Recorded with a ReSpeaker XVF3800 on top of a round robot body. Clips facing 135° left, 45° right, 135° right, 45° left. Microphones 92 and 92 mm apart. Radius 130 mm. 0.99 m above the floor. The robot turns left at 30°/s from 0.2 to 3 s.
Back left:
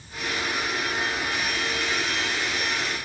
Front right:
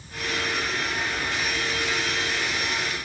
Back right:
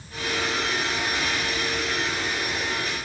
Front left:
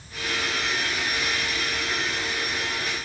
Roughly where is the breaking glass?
No breaking glass in this recording.